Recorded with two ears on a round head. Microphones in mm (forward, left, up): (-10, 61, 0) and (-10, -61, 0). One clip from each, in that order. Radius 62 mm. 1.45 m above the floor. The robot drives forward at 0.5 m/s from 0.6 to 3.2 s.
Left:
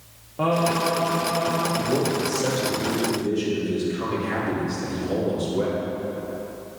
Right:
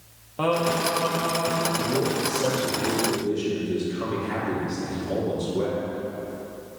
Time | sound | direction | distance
0.4 | singing | 70° right (ahead or behind) | 1.1 m
1.8 | a man speaking | 20° left (ahead or behind) | 2 m